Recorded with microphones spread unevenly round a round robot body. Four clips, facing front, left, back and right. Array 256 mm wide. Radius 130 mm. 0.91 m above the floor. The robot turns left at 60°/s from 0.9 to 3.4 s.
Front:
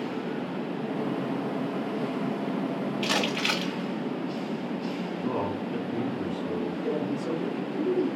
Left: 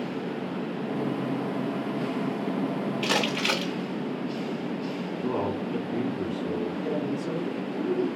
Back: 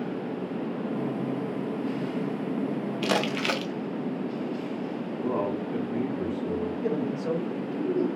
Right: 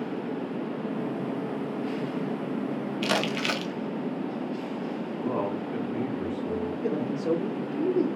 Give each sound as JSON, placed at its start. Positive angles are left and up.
{"t": 3.0, "sound": "crumpling", "azimuth_deg": -175, "distance_m": 0.7}
{"t": 5.2, "sound": "a man speaking", "azimuth_deg": 175, "distance_m": 1.8}
{"t": 6.8, "sound": "a man speaking", "azimuth_deg": -95, "distance_m": 1.1}